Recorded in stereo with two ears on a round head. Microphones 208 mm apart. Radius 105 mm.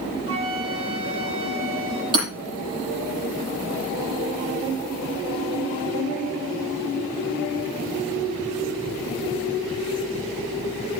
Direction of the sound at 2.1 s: 25° right (ahead or behind).